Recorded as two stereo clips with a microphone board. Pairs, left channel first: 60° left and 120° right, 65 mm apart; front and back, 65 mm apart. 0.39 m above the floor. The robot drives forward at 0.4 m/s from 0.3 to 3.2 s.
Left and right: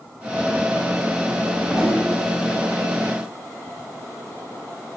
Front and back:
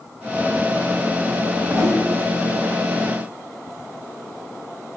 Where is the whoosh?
160° left, 0.7 m; by 2.0 s 165° left, 0.9 m.